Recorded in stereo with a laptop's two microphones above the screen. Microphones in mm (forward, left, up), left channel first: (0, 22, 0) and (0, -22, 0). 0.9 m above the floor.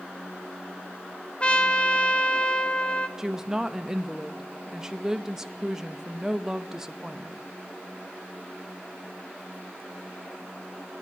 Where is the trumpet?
25° left (ahead or behind), 0.7 m.